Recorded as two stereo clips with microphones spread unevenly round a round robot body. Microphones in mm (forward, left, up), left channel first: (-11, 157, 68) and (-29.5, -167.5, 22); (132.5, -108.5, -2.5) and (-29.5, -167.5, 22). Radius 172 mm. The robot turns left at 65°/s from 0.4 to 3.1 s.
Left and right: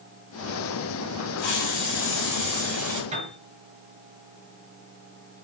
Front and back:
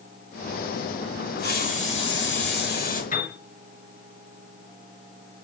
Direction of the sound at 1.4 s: 85° left.